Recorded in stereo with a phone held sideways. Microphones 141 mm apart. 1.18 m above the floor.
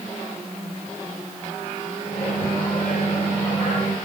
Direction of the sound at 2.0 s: 45° left (ahead or behind).